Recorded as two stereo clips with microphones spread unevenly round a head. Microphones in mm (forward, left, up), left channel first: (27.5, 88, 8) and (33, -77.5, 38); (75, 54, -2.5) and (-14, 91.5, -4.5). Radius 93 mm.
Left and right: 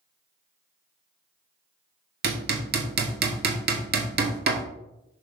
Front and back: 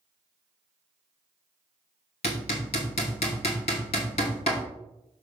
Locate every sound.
2.2 s hammering: 65° right, 2 m